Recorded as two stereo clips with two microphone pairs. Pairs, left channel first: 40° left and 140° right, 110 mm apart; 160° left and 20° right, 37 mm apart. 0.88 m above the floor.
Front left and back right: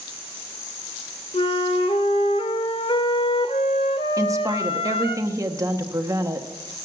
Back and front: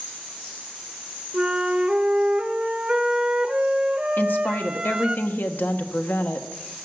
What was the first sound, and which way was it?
A flute, 35° left.